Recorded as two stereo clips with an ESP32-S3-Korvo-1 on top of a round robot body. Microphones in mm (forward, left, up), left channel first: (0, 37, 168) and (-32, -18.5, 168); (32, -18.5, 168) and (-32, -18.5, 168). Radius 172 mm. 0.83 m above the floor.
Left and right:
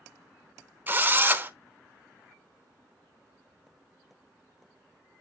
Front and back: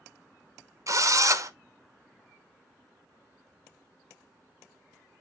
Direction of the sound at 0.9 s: 175° right.